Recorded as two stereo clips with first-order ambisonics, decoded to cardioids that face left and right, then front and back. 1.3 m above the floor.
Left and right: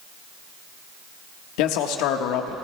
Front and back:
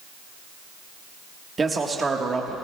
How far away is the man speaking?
About 1.3 m.